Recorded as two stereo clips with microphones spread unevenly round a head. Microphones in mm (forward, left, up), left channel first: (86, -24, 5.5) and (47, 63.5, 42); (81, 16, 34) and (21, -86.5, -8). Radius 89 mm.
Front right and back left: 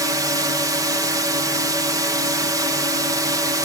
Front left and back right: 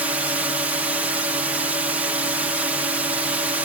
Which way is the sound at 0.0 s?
170° right.